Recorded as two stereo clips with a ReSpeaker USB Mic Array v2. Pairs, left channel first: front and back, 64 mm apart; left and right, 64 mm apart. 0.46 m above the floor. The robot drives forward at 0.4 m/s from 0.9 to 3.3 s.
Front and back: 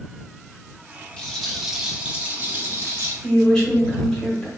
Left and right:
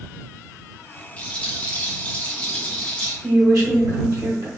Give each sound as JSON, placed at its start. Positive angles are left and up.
{"t": 1.2, "sound": "a rattle", "azimuth_deg": 50, "distance_m": 0.6}
{"t": 3.2, "sound": "a woman speaking", "azimuth_deg": -75, "distance_m": 1.3}